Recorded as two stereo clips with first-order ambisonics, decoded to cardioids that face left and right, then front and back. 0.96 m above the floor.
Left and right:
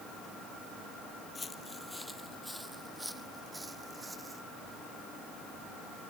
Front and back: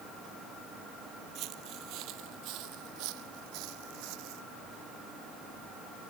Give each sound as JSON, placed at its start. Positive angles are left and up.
{"t": 1.4, "sound": "footsteps", "azimuth_deg": 160}